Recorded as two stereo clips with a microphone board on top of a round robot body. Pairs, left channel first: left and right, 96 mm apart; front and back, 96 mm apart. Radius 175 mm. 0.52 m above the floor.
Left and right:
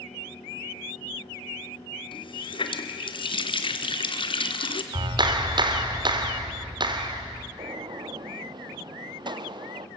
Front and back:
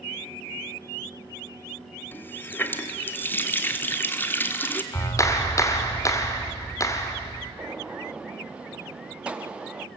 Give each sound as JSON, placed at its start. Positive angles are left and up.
{"t": 2.1, "sound": "a running tap", "azimuth_deg": 70, "distance_m": 1.3}
{"t": 4.9, "sound": "a clap", "azimuth_deg": -55, "distance_m": 1.9}
{"t": 7.6, "sound": "a gunshot", "azimuth_deg": -105, "distance_m": 1.1}